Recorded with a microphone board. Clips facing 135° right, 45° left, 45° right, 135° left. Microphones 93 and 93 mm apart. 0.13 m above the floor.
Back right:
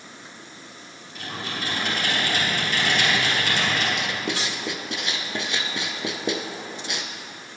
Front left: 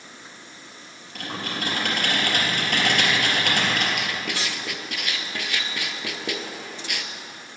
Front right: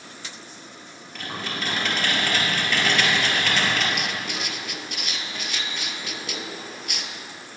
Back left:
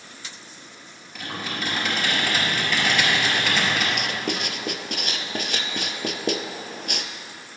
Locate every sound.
1.1 s typing on a keyboard: 50° left, 3.5 m
4.0 s writing: 165° left, 0.8 m